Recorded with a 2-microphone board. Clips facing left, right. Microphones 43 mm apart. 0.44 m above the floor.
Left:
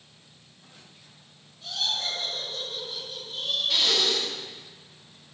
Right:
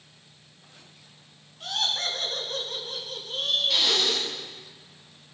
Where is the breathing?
5° right (ahead or behind), 8.5 m.